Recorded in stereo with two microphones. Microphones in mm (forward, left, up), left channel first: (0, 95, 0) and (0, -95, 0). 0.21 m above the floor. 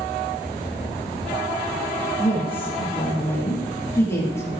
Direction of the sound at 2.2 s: 10° left (ahead or behind).